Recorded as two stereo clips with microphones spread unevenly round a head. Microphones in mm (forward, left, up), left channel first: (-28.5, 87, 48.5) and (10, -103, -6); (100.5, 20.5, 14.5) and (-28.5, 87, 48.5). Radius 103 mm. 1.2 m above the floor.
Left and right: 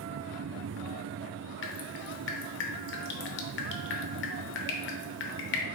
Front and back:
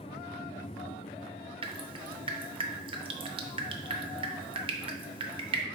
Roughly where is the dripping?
Left.